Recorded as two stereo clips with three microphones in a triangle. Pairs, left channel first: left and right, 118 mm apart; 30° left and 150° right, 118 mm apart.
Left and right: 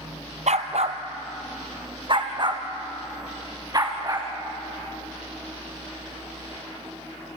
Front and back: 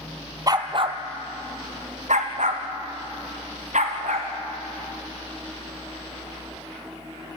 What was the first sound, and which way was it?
A dog barking, 90° right.